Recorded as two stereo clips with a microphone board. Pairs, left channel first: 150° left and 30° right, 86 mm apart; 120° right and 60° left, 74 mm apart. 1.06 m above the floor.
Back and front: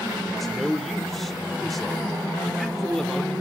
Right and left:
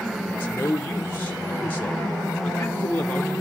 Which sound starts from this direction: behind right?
A man speaking, at 0.3 s.